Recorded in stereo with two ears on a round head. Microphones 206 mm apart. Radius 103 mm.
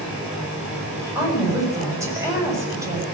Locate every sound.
1.1 s a woman speaking: 10° right (ahead or behind), 7.5 m